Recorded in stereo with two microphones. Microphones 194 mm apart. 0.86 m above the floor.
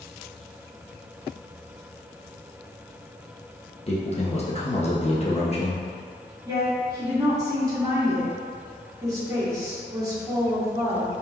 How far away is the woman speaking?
About 1.8 m.